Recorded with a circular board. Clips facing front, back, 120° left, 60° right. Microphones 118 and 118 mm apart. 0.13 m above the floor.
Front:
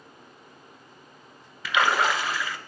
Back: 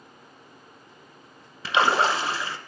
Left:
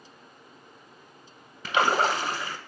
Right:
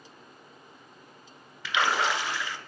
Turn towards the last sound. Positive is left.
turn(degrees=135)